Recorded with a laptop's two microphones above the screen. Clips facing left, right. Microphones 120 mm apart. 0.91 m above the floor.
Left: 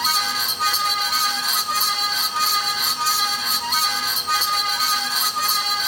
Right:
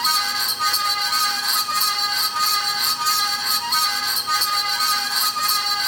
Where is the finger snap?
I don't hear a finger snap.